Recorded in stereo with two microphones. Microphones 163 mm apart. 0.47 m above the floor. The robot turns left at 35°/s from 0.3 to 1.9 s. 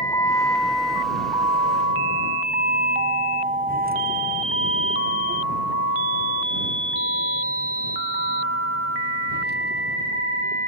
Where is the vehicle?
25° left (ahead or behind); by 10.7 s 85° right.